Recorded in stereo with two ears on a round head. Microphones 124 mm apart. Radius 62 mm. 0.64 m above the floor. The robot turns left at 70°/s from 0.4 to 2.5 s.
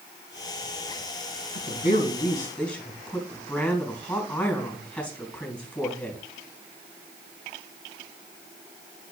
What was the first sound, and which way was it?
A woman speaking, 75° left.